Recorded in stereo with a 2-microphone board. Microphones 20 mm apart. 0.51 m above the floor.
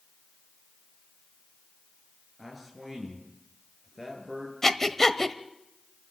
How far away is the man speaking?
About 9 m.